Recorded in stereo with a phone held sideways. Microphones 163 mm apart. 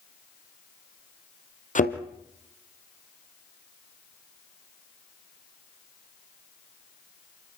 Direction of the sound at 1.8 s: 50° left (ahead or behind).